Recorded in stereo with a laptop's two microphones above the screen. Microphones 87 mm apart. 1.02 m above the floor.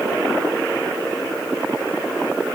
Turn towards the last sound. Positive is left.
No sound to turn to.